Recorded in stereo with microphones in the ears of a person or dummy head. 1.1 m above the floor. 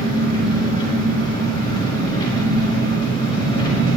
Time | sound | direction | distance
0.0 | an engine running | 20° left (ahead or behind) | 3.5 m